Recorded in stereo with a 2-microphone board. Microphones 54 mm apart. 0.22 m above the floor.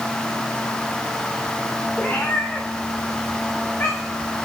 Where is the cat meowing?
25° left (ahead or behind), 2 m; by 4.3 s 35° left (ahead or behind), 3.5 m.